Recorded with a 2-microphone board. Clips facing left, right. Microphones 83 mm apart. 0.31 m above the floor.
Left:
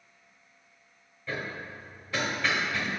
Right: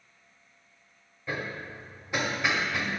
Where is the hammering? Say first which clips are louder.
Right 1 dB; 15° right (ahead or behind), 1.1 m.